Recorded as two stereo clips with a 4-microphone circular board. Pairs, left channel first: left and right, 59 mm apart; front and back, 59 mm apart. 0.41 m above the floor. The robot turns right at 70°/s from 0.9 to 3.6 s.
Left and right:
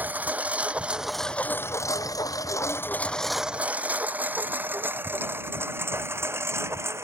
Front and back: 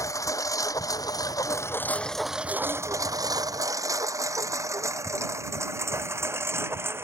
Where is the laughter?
I don't hear laughter.